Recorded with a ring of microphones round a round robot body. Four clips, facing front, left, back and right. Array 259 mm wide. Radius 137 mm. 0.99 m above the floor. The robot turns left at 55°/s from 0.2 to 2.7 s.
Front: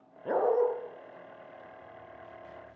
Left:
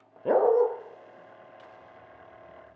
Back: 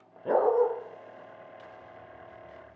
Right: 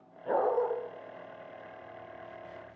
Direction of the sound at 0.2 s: 90° left.